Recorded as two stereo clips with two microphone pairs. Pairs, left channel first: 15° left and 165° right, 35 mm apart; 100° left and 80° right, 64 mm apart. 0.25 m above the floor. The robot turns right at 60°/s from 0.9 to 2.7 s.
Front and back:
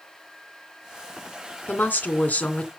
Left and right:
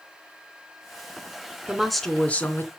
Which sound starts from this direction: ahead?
A woman speaking, at 1.7 s.